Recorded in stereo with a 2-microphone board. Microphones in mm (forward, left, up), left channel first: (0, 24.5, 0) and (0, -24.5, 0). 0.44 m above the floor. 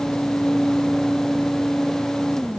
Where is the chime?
No chime in this recording.